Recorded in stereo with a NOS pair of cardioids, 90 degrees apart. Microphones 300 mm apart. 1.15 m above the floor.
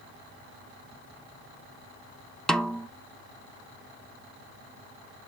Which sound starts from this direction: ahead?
A snare drum, at 2.5 s.